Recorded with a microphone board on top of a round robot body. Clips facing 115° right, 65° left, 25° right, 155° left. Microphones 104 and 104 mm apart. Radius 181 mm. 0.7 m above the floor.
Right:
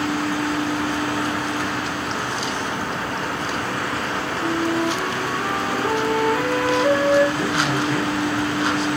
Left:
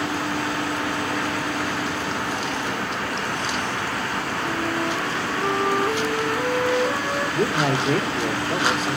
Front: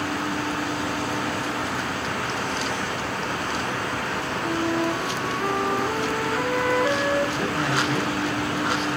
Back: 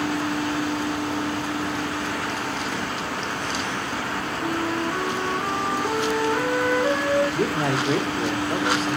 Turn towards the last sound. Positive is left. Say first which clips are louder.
# even, back 2 dB
turn(degrees=110)